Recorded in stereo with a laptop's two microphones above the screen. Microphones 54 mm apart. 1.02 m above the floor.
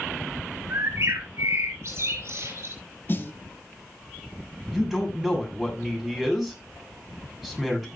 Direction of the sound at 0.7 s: 55° right (ahead or behind).